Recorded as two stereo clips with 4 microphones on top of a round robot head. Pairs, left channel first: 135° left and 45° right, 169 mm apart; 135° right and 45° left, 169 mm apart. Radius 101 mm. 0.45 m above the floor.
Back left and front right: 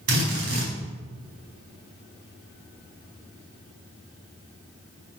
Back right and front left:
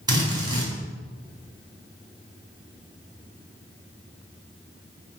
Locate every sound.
0.1 s a drill: 20° right, 4.5 m